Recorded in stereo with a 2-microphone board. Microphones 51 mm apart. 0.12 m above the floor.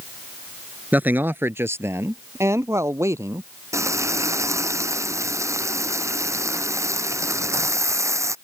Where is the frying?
75° right (ahead or behind).